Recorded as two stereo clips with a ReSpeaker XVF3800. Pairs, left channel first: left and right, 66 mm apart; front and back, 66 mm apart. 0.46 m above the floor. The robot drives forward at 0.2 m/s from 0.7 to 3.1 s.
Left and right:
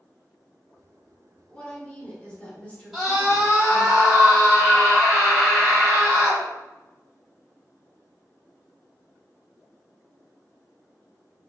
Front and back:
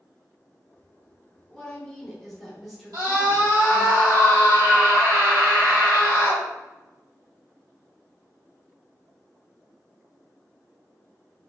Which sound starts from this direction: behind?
A scream, at 2.9 s.